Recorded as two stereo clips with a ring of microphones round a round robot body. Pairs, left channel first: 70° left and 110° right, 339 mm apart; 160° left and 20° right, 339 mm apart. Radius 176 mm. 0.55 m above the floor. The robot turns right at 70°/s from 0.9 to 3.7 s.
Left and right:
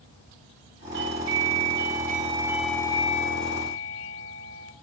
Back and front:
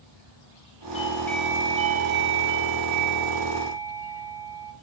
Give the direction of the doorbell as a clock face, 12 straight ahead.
5 o'clock.